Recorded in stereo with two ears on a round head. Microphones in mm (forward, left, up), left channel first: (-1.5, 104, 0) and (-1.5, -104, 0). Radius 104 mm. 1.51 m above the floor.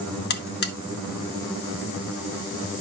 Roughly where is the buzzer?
Left.